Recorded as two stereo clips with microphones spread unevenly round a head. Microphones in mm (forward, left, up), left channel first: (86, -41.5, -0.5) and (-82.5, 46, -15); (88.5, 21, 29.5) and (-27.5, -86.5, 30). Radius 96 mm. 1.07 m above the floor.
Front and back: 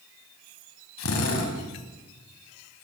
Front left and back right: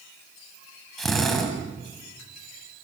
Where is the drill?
45° right, 5.5 m.